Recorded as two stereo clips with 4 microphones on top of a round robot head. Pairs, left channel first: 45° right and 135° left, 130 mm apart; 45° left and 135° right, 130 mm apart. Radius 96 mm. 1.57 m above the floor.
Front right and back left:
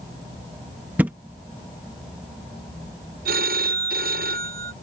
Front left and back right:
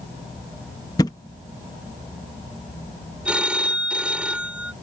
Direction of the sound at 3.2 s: 140° left.